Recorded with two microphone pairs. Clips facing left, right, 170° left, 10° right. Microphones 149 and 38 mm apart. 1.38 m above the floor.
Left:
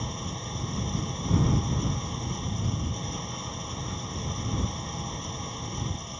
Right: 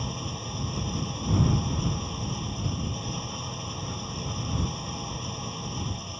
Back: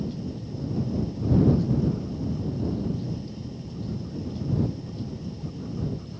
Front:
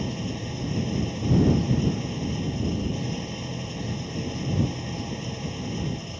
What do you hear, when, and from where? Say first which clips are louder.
0.0 s an engine running: right 1 dB, front 2 dB; 5° right